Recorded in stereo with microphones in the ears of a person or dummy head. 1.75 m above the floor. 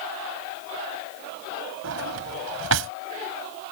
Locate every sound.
1.8 s a drawer: 75° right (ahead or behind)